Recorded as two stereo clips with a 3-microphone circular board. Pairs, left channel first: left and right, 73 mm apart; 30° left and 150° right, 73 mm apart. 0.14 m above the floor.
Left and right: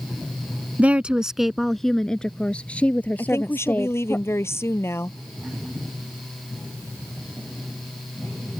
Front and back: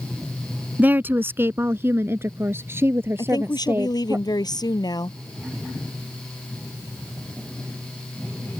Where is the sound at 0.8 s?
130° right; by 4.2 s 150° left.